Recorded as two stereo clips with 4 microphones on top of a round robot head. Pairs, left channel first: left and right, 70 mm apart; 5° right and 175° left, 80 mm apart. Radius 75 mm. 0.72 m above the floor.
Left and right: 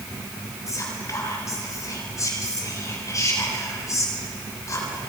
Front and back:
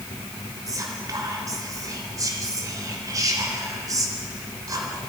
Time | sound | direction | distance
0.7 | whispering | 130° left | 3.5 m